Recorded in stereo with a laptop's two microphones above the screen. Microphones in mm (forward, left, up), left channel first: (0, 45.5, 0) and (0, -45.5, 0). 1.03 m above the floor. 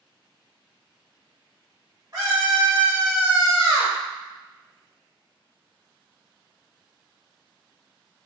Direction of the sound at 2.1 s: 40° right (ahead or behind).